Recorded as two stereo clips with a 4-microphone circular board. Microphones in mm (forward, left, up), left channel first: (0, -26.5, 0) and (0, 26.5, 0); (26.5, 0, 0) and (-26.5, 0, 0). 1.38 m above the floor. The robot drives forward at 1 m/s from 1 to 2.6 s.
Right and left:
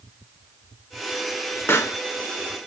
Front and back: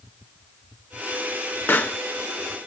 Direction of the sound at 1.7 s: 45° right.